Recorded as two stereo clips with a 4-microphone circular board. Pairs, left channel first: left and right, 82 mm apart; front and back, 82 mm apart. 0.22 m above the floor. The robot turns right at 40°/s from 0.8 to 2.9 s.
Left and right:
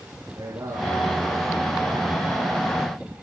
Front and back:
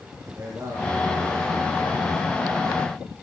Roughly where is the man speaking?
Behind right.